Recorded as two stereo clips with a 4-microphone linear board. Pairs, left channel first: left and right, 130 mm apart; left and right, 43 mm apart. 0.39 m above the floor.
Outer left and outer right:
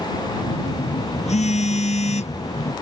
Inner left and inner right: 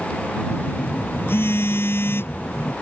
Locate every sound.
0.5 s a phone buzzing: 60° left (ahead or behind)